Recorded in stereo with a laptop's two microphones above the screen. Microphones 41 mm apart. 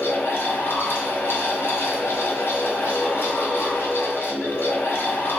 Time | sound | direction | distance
0.0 | a fan | 70° left (ahead or behind) | 1.0 m